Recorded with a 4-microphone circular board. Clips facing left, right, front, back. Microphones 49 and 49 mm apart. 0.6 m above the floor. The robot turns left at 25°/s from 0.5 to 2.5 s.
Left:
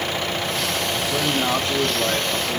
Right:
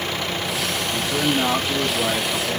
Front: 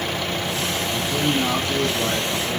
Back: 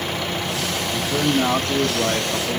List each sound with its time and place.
0.9 s a man speaking: 150° right, 1.1 m; by 2.6 s 170° left, 1.1 m